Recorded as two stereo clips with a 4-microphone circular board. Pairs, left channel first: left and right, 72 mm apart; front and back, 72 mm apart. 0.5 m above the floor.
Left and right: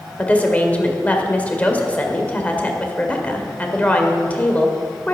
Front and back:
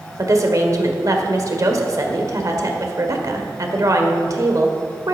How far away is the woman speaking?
About 1.6 m.